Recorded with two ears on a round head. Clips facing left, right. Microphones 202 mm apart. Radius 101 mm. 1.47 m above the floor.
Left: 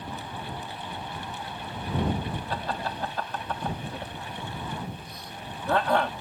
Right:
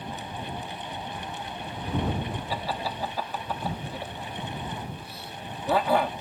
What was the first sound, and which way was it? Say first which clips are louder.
Laughter: even; 5° right (ahead or behind).